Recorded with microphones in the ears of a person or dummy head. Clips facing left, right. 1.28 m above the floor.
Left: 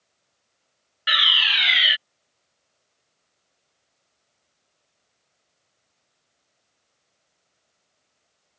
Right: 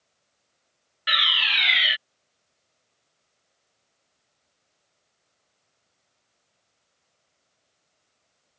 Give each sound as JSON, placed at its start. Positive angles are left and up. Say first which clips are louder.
{"t": 1.1, "sound": "a fire alarm", "louder": "left 1 dB", "side_deg": 5}